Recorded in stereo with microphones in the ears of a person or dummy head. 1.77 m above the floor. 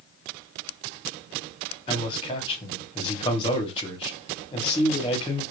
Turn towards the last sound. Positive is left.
turn(degrees=30)  # may be behind; listen again after turning